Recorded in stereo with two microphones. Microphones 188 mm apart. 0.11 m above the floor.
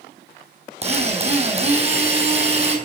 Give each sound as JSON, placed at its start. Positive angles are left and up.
{"t": 0.8, "sound": "a drill", "side_deg": -35, "distance_m": 3.0}